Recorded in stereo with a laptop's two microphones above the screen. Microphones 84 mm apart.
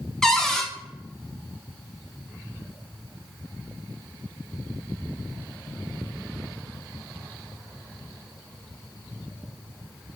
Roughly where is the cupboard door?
Centre.